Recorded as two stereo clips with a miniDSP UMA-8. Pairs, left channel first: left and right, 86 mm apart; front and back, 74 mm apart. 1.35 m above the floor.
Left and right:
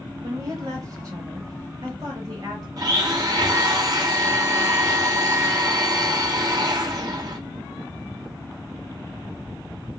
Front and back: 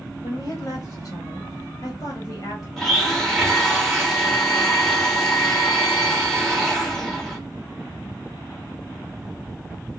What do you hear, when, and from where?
0.2 s a woman speaking: 40° right, 1.1 m
2.8 s a blender: 85° right, 1.0 m